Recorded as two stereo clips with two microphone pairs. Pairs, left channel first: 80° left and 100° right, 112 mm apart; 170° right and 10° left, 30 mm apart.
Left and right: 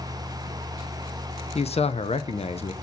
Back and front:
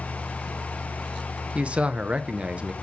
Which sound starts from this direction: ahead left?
A man speaking, at 1.6 s.